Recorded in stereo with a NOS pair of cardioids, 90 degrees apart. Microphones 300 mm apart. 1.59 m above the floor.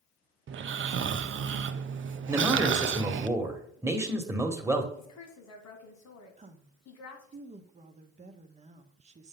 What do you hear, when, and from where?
0.5 s snoring: 45° right, 0.6 m
2.3 s a man speaking: 10° right, 1.5 m
4.9 s a woman speaking: 65° left, 1.9 m
6.4 s a woman speaking: 25° right, 0.9 m